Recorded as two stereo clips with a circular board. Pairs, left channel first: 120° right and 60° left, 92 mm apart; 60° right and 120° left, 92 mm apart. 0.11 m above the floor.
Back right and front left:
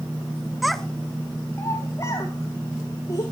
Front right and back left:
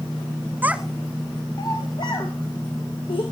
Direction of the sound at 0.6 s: 145° left.